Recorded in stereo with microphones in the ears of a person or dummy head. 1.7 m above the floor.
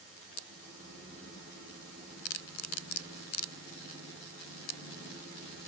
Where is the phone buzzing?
No phone buzzing in this recording.